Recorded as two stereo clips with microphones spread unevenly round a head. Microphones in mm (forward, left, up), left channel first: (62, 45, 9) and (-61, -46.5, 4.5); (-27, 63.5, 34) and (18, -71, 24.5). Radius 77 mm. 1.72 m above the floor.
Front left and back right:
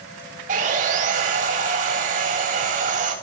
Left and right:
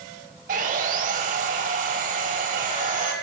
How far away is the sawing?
About 3 m.